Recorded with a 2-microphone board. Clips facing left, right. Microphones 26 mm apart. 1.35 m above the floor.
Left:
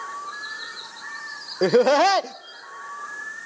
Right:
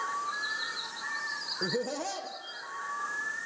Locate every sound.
1.6 s laughter: 70° left (ahead or behind), 0.5 m